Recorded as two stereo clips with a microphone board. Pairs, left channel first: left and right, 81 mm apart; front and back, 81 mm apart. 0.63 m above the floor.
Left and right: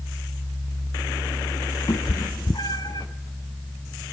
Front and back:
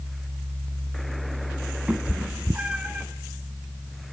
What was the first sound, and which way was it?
A cat meowing, 105° left.